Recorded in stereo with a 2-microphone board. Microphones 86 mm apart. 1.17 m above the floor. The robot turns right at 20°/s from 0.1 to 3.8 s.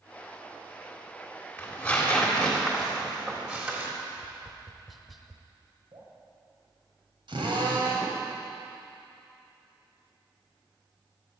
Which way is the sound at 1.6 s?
160° left.